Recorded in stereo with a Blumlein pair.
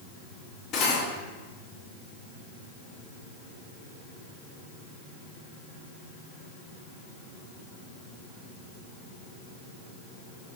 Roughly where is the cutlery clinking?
Ahead left.